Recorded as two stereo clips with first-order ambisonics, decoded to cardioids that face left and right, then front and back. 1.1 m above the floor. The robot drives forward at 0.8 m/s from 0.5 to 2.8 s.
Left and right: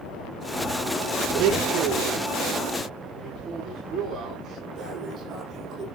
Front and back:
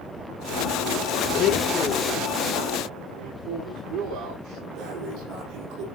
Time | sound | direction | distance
1.3 | a blender | 50° right | 1.2 m
3.1 | a man speaking | 165° right | 8 m
4.8 | breathing | 165° right | 7 m